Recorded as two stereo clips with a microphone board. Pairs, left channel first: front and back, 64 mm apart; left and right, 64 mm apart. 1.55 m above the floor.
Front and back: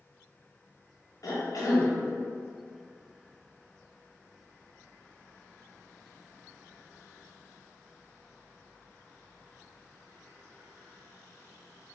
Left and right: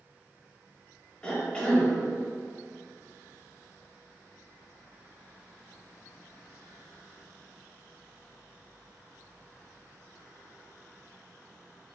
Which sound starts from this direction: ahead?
A cough, at 1.2 s.